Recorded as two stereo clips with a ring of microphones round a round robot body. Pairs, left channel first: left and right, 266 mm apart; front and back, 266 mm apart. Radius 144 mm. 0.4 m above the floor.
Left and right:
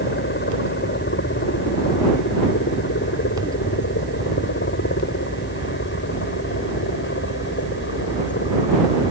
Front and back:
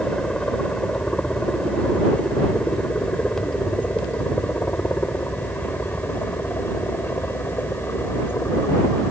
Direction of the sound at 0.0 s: 85° left.